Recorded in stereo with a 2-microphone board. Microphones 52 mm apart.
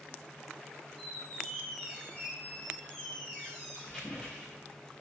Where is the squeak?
15° left (ahead or behind), 3.5 m.